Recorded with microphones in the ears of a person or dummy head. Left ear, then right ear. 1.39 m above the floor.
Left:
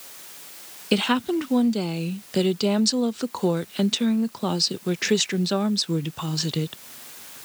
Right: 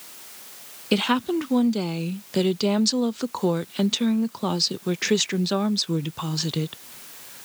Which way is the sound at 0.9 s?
Centre (ahead or behind).